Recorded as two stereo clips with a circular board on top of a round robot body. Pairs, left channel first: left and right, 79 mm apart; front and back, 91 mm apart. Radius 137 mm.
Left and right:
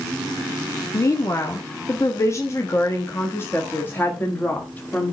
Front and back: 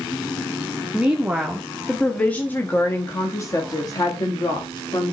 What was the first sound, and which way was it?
A woman speaking, 110° left.